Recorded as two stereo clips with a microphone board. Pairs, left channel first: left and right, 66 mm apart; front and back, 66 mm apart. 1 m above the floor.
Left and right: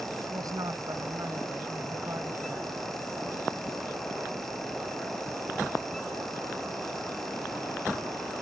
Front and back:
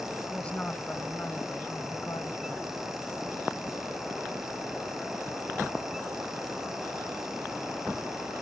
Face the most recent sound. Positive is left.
turn(degrees=-30)